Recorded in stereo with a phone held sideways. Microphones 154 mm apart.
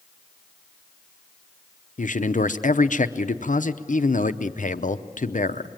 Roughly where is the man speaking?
Left.